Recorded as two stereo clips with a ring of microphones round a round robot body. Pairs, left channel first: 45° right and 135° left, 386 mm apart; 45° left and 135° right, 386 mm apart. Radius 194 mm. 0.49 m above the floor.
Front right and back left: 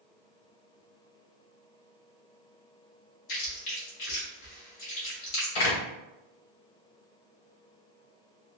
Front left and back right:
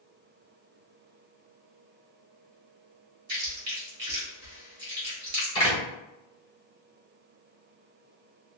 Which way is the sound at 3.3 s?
75° right.